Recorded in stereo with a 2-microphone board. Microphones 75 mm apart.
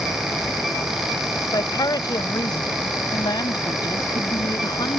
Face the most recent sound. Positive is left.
turn(degrees=70)  # may be behind; listen again after turning